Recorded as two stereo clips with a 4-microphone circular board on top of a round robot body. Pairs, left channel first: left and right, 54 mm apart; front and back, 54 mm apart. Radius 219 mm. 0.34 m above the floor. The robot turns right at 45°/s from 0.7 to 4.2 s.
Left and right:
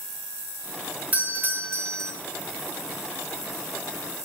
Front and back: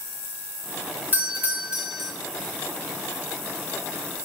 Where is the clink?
No clink in this recording.